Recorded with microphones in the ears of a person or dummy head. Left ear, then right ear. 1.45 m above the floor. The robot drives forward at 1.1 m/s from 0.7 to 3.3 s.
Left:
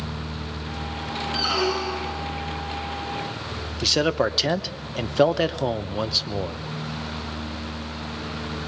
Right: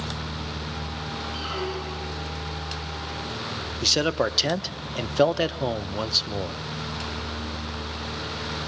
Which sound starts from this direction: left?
A squeak, at 1.3 s.